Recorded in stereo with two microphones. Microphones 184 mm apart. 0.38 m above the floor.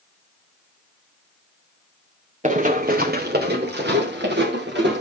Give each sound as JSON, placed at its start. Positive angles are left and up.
{"t": 2.4, "sound": "running footsteps", "side_deg": -40, "distance_m": 1.7}